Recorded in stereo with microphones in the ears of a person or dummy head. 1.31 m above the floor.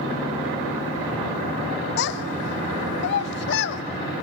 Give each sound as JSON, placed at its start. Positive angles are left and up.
{"t": 2.0, "sound": "a child speaking", "side_deg": 65, "distance_m": 0.6}